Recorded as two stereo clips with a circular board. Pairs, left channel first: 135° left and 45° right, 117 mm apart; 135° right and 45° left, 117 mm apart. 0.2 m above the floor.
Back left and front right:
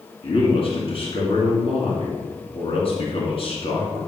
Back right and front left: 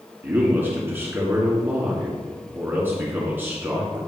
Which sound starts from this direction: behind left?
A man speaking, at 0.2 s.